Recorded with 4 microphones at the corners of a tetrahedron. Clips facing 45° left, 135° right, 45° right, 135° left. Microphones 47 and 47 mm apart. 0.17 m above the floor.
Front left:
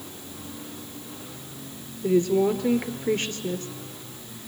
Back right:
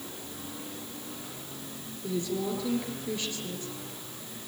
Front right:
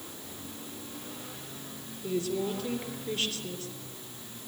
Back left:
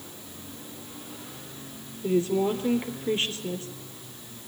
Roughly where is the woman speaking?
Left.